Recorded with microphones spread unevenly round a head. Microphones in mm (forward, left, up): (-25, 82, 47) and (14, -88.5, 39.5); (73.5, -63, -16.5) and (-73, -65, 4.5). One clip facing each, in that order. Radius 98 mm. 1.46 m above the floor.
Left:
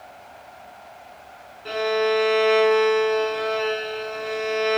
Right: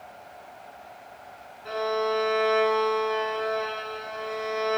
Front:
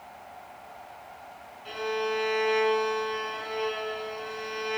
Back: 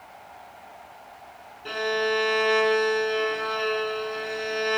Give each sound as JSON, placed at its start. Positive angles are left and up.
{"t": 1.6, "sound": "a violin", "azimuth_deg": 160, "distance_m": 4.0}